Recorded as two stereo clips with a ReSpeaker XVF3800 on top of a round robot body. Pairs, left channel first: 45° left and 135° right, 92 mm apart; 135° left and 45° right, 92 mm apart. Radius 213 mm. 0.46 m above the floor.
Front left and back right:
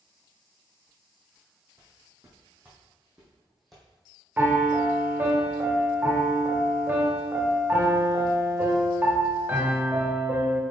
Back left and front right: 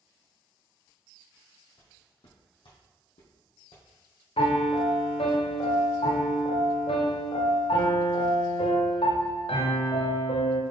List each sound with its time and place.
1.8 s footsteps: 165° left, 1.9 m; by 3.9 s 130° left, 1.8 m
4.4 s a piano: 155° left, 0.7 m